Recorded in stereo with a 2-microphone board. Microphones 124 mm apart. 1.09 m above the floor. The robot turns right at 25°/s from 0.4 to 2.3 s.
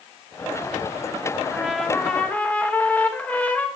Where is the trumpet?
5° right (ahead or behind), 1.1 m; by 3.7 s 10° left (ahead or behind), 1.1 m.